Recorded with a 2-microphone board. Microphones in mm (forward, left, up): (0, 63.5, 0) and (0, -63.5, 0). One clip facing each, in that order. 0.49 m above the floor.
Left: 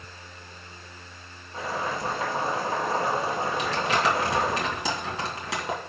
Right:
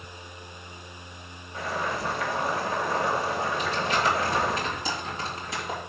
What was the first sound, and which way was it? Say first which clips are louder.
Boiling: even; 25° left (ahead or behind).